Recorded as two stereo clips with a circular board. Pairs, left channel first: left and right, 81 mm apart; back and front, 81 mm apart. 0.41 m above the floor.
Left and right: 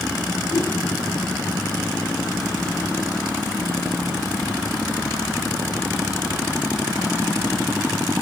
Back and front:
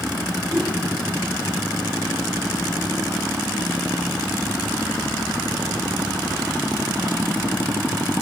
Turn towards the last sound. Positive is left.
turn(degrees=60)